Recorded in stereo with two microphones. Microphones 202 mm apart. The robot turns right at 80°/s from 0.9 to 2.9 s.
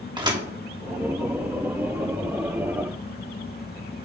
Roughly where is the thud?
Right.